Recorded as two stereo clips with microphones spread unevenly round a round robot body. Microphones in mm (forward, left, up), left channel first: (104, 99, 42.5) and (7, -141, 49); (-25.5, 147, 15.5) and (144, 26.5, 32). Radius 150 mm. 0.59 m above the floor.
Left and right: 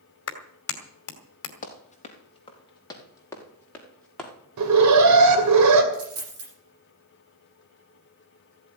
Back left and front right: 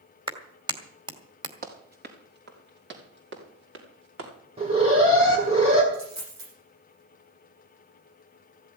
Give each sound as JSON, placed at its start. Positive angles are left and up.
{"t": 0.3, "sound": "a clap", "azimuth_deg": 35, "distance_m": 2.5}
{"t": 1.6, "sound": "running footsteps", "azimuth_deg": 5, "distance_m": 4.0}
{"t": 4.6, "sound": "an alarm", "azimuth_deg": -105, "distance_m": 2.5}
{"t": 5.9, "sound": "a dropped coin", "azimuth_deg": -80, "distance_m": 8.5}